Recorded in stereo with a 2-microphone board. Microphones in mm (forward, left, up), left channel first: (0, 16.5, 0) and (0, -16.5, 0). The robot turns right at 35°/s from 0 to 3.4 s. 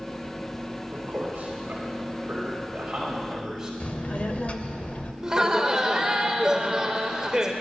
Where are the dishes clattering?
No dishes clattering in this recording.